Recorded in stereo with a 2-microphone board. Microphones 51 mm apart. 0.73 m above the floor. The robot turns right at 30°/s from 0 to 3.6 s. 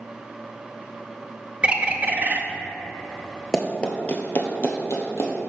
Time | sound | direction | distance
1.6 | a bird | 20° right (ahead or behind) | 0.5 m
3.5 | running footsteps | 10° left (ahead or behind) | 0.8 m